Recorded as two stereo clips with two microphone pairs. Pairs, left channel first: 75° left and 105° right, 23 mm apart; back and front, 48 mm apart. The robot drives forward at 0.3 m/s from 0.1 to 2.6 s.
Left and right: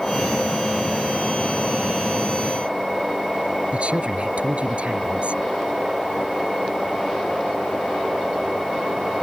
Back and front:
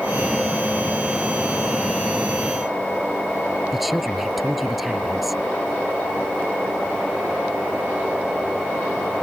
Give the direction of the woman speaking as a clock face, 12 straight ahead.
3 o'clock.